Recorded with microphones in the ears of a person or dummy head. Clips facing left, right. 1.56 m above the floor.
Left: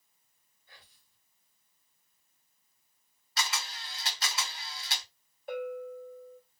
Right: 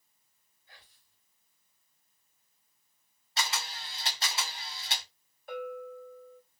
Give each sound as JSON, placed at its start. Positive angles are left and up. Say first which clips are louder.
{"t": 0.7, "sound": "whispering", "louder": "even", "side_deg": 85, "distance_m": 1.1}
{"t": 3.4, "sound": "a camera shutter", "louder": "right 1 dB", "side_deg": -25, "distance_m": 0.8}
{"t": 5.5, "sound": "a bell", "louder": "left 2 dB", "side_deg": 25, "distance_m": 1.5}